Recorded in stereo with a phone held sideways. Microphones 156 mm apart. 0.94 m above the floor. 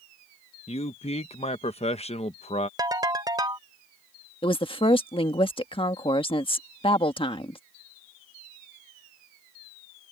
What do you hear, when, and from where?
0.7 s a man speaking: 40° left (ahead or behind)
2.8 s a ringtone: 25° right (ahead or behind)
4.4 s a woman speaking: 35° left (ahead or behind)